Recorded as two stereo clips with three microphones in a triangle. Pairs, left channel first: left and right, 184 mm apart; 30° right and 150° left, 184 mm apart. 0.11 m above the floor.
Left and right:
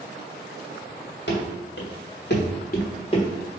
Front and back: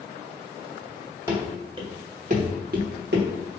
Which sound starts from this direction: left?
Running footsteps, at 1.3 s.